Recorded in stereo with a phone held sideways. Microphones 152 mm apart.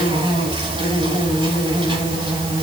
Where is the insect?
30° right (ahead or behind), 7 m.